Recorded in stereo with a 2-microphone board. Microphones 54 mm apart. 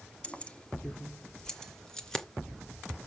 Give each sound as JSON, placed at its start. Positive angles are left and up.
{"t": 0.2, "sound": "keys jangling", "side_deg": 20, "distance_m": 1.2}